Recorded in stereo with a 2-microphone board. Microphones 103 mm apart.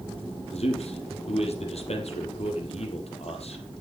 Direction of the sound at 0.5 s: 70° left (ahead or behind).